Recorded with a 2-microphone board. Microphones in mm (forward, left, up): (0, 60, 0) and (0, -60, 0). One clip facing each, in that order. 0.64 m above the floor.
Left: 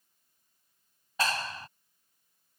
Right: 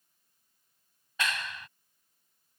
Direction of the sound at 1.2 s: 35° left (ahead or behind).